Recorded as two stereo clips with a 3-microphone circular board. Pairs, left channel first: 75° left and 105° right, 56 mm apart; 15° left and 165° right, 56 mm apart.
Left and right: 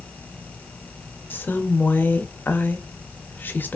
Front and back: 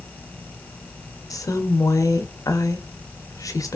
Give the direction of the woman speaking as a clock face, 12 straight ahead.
11 o'clock.